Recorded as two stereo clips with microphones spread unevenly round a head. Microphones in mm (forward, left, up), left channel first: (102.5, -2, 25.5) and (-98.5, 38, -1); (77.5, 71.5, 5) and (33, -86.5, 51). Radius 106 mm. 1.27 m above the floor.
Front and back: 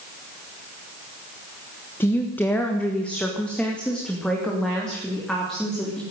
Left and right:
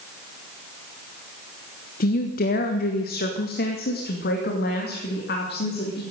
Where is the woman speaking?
70° left, 1.2 m; by 6.0 s 75° left, 3.5 m.